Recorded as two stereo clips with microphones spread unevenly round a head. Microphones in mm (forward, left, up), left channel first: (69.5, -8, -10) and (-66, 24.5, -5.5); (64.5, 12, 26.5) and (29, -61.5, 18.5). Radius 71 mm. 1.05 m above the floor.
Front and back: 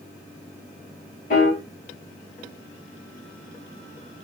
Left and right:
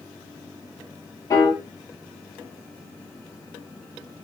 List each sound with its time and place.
1.3 s a piano: 20° left, 1.7 m